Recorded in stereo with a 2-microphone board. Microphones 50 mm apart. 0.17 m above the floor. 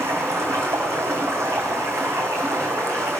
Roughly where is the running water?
Right.